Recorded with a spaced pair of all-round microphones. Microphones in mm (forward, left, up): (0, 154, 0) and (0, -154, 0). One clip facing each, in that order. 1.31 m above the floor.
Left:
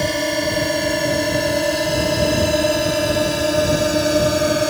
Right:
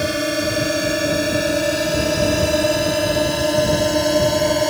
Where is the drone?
10° right (ahead or behind); by 4.7 s 5° left (ahead or behind).